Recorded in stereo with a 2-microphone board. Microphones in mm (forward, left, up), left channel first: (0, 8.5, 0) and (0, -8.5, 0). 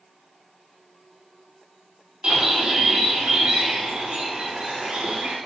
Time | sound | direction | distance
2.2 | a bird | 85° right | 6 m